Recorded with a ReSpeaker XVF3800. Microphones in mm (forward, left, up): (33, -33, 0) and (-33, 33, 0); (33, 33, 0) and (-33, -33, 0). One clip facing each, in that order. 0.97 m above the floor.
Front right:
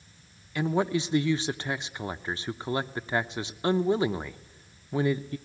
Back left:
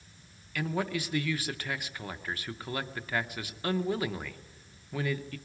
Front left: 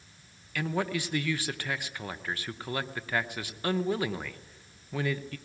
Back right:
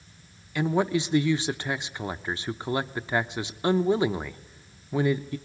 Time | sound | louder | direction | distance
0.6 | a man speaking | front right 6 dB, back right 6 dB | 90° right | 0.7 m